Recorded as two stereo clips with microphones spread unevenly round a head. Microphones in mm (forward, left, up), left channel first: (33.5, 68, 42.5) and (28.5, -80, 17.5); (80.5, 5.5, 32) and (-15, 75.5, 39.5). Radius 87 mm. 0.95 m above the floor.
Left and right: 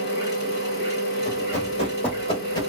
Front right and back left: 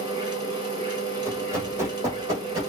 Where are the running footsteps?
80° left, 1.6 m; by 2.7 s 110° left, 1.0 m.